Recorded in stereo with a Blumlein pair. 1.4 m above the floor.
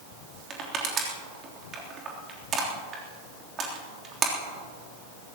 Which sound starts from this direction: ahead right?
Crushing, at 0.5 s.